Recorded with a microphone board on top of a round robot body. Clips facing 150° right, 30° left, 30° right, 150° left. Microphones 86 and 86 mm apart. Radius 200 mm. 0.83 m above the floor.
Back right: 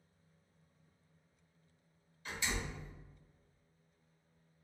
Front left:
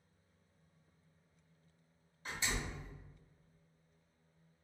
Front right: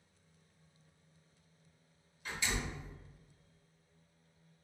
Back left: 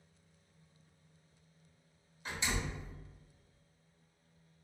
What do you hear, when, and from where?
2.2 s a door slam: 85° left, 1.8 m